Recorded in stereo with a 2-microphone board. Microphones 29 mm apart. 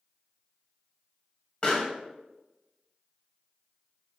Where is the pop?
25° left (ahead or behind), 0.9 m.